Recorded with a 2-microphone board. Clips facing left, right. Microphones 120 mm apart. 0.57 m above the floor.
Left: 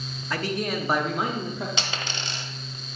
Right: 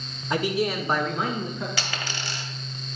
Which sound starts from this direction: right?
A man speaking, at 0.3 s.